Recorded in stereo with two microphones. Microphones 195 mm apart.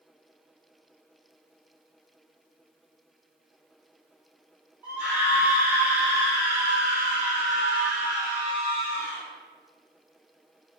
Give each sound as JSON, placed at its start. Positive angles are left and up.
{"t": 4.8, "sound": "a scream", "side_deg": -10, "distance_m": 2.5}